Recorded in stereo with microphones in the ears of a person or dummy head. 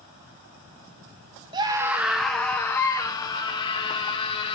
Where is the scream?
25° right (ahead or behind), 1.4 m; by 4.5 s 30° left (ahead or behind), 4 m.